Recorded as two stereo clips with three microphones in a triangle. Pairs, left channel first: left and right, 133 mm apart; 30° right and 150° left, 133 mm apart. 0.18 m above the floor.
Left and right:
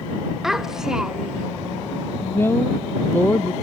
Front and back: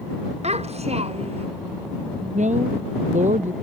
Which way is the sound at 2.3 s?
165° left.